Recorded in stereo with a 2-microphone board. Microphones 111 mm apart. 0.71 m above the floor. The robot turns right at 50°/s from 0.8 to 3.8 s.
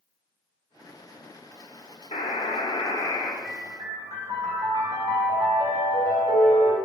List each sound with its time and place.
2.1 s a buzzer: 95° left, 0.9 m; by 3.3 s 155° left, 0.9 m
3.4 s a piano: 55° right (ahead or behind), 2 m; by 6.8 s 40° right (ahead or behind), 2 m